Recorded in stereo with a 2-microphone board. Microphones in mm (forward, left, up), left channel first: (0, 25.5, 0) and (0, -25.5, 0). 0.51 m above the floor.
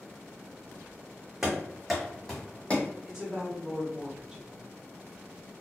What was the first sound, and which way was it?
Running footsteps, 10° right (ahead or behind).